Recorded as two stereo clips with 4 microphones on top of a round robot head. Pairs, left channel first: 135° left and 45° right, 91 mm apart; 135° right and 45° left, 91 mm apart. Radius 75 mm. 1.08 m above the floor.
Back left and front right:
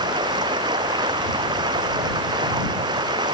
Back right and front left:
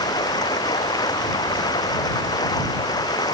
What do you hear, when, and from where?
0.0 s running water: 90° right